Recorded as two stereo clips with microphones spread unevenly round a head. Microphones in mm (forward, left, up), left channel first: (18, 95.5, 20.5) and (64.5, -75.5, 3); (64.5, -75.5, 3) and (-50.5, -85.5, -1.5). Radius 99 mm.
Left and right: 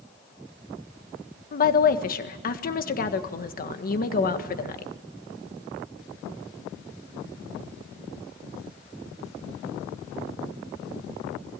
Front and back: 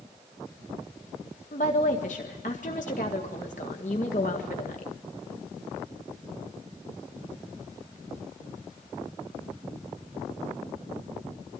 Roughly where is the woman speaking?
Ahead left.